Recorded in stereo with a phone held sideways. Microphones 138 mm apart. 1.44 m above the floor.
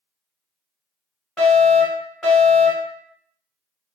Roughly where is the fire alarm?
Centre.